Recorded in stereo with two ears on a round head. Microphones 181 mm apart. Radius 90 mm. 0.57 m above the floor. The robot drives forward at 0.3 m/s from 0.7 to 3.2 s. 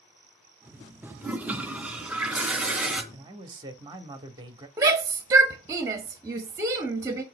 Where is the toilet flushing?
10° right (ahead or behind), 0.5 m; by 3.0 s 5° right (ahead or behind), 1.1 m.